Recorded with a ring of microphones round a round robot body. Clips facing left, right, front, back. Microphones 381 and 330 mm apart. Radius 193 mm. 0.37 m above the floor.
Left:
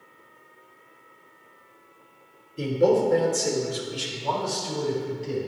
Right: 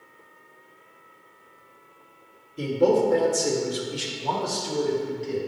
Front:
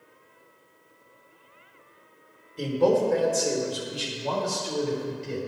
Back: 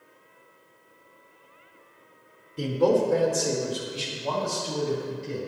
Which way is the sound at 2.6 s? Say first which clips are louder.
Even, even; 175° left.